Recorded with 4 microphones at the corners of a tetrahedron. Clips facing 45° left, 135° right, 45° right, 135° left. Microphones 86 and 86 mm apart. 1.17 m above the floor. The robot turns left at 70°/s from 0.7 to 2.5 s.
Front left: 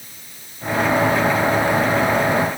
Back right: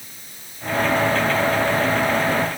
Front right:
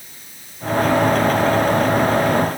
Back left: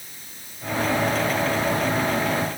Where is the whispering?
No whispering in this recording.